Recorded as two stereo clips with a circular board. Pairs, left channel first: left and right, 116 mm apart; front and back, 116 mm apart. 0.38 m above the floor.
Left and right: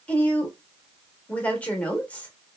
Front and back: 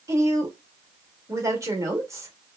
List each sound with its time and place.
0.1 s a woman speaking: 155° left, 0.8 m